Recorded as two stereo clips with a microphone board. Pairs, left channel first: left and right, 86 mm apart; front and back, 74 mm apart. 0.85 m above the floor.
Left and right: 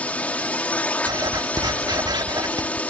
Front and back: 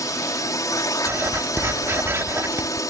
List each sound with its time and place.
0.0 s a drone: 20° left
1.1 s writing: 125° right